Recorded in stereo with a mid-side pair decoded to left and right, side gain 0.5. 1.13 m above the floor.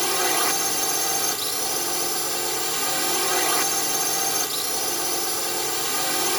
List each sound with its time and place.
0.0 s a drone: 5° right